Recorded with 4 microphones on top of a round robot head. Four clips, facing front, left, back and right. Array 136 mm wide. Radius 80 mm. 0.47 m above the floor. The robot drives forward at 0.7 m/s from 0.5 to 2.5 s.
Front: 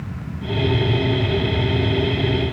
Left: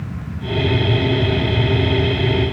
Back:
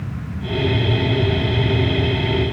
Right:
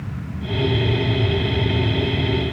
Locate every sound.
Only background noise.